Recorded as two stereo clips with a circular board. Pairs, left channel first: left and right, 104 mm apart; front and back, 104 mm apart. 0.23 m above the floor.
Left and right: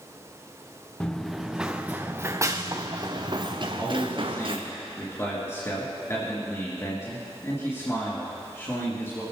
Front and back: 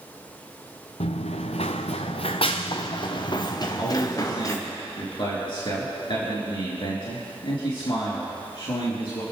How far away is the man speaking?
About 3.5 m.